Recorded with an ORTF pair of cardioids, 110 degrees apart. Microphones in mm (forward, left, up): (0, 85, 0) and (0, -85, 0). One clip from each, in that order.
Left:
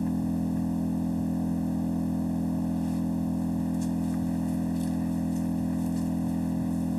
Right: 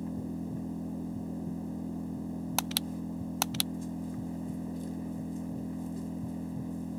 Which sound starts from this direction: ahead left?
An engine running, at 0.0 s.